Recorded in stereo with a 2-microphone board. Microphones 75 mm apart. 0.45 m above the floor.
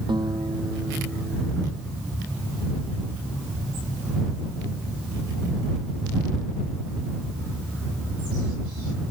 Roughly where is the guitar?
Right.